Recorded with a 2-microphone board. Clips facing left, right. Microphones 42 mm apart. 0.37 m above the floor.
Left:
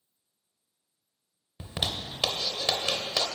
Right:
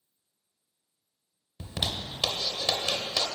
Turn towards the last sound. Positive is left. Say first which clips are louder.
# even
turn(degrees=20)  # may be behind; listen again after turning